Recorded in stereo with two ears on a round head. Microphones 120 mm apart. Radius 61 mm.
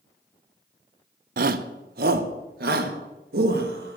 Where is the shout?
75° right (ahead or behind), 0.8 m; by 4.0 s 85° right, 2.5 m.